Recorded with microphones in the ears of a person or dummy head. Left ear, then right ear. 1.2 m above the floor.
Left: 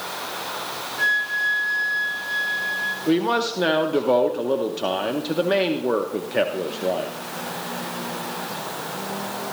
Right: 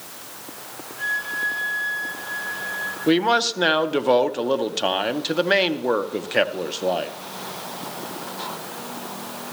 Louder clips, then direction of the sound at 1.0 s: Left 4 dB; 35° left (ahead or behind).